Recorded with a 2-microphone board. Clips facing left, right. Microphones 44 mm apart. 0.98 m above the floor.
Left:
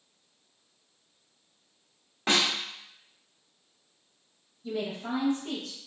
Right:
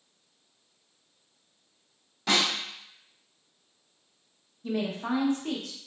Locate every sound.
2.3 s a snare drum: 35° left (ahead or behind), 1.0 m
4.6 s a woman speaking: 55° right (ahead or behind), 0.8 m